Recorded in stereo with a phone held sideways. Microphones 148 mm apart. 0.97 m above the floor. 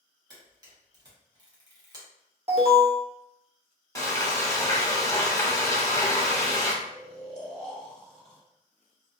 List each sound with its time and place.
0.3 s a camera shutter: 25° right (ahead or behind), 0.9 m
2.5 s an alarm: 45° right (ahead or behind), 0.6 m
4.0 s frying: 25° left (ahead or behind), 0.8 m
6.8 s snoring: 40° right (ahead or behind), 1.5 m